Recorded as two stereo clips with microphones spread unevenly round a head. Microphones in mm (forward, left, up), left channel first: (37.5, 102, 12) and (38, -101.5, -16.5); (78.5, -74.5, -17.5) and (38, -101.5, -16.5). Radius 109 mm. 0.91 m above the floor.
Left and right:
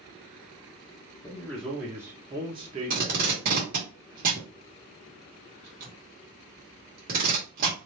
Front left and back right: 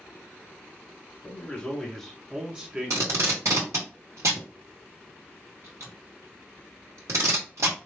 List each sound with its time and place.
1.2 s a man speaking: 10° left, 1.0 m; by 3.9 s 115° right, 1.5 m
2.9 s tape being pulled: 140° right, 1.3 m